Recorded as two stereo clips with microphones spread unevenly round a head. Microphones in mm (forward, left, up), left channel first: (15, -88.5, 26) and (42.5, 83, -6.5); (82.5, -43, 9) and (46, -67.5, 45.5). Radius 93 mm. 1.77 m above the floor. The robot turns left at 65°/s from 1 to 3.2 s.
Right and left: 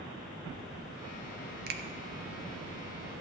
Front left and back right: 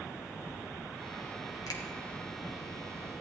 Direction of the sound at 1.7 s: 65° left.